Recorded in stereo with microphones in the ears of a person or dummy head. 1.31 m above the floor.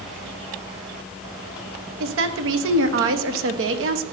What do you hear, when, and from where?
2.0 s a woman speaking: 65° right (ahead or behind), 0.8 m